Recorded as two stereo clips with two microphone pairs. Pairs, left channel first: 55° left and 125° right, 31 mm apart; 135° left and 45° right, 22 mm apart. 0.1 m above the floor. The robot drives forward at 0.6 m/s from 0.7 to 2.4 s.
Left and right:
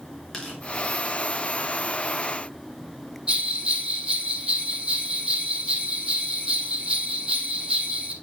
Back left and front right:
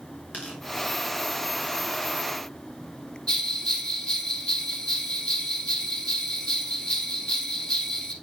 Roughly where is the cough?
No cough in this recording.